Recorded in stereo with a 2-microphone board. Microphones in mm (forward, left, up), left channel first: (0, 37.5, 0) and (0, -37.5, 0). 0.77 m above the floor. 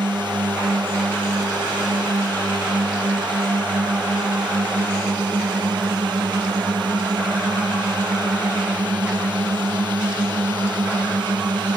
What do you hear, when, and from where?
0.0 s a drone: 85° right